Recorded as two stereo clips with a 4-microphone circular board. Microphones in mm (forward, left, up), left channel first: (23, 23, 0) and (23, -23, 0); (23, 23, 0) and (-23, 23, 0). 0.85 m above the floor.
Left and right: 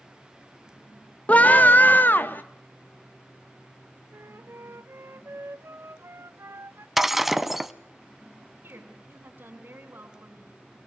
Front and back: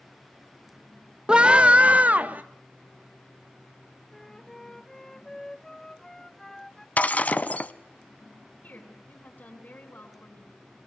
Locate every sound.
1.3 s a scream: 120° left, 0.8 m; by 2.4 s 125° left, 1.7 m
4.1 s a flute: 85° right, 0.5 m
7.0 s breaking glass: 10° right, 0.8 m
8.6 s a woman speaking: 50° right, 7 m